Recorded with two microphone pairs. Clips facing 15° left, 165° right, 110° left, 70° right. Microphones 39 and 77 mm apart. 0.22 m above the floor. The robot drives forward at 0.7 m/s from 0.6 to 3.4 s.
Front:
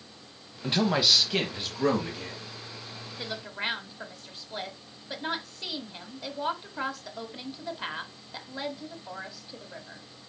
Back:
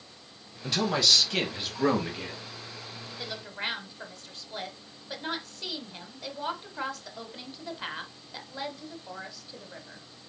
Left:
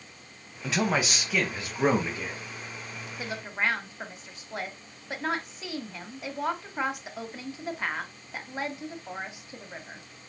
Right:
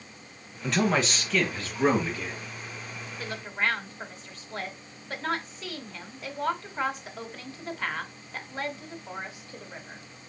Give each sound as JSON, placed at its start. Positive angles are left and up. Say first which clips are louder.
{"t": 0.6, "sound": "a man speaking", "louder": "front 1 dB, right 2 dB", "azimuth_deg": 30, "distance_m": 1.3}
{"t": 3.2, "sound": "a woman speaking", "louder": "front 2 dB, even", "azimuth_deg": 70, "distance_m": 1.1}